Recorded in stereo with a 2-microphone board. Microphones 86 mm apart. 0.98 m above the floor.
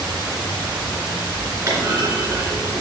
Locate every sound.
1.7 s a clunk: 45° right (ahead or behind), 3 m